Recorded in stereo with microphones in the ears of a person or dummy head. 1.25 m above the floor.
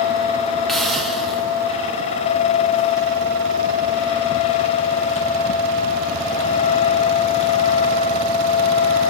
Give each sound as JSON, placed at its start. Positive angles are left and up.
{"t": 0.7, "sound": "a hiss", "side_deg": -5, "distance_m": 1.3}